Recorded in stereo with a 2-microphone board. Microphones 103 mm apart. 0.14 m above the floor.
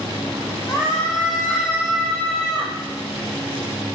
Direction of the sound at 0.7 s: 30° left (ahead or behind).